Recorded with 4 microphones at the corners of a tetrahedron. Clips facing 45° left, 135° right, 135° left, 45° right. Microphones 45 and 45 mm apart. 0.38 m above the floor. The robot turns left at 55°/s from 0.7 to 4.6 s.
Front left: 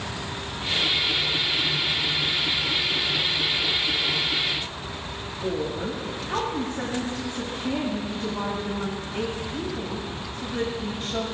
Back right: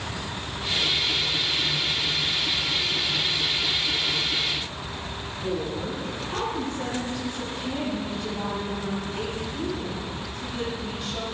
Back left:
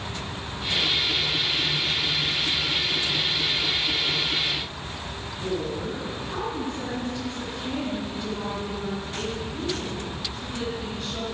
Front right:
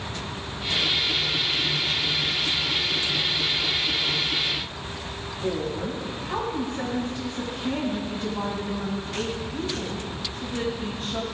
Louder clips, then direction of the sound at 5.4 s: Front left 1 dB, front right 1 dB; 10° right.